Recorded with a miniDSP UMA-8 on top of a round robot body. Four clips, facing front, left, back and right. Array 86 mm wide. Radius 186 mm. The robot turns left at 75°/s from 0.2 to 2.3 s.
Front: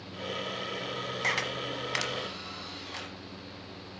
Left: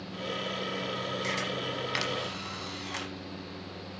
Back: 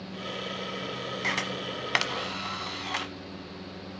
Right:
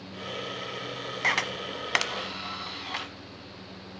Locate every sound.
1.2 s a camera shutter: 85° right, 1.1 m; by 3.1 s 160° right, 1.1 m